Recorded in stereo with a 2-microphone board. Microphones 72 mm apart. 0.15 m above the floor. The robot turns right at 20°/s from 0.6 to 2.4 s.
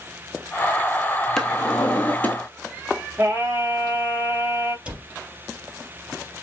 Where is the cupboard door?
15° right (ahead or behind), 3 m.